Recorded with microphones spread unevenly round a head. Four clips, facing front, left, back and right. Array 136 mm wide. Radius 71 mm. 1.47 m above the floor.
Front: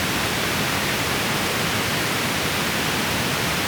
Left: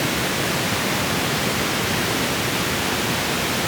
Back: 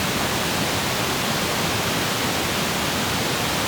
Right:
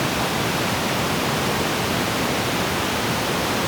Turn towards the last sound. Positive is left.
No sound to turn to.